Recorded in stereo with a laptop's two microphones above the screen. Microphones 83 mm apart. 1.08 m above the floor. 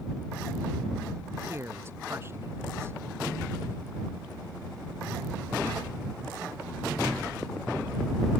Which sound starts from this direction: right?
A man speaking, at 1.5 s.